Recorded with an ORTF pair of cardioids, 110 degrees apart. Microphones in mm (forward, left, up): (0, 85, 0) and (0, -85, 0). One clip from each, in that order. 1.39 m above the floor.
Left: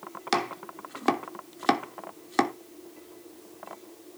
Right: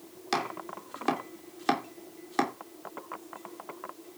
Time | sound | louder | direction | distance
0.3 | chopping | left 3 dB | 20° left | 3 m